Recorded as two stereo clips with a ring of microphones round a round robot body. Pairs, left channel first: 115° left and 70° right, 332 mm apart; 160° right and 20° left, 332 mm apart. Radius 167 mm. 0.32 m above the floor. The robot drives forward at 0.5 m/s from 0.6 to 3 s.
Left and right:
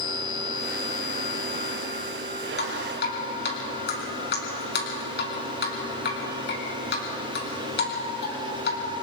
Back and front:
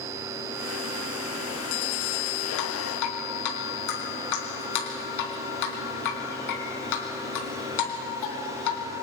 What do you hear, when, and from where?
2.6 s dripping: 170° left, 4 m